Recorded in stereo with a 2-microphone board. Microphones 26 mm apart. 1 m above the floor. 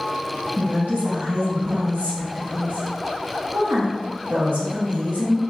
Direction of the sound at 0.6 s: 70° right (ahead or behind).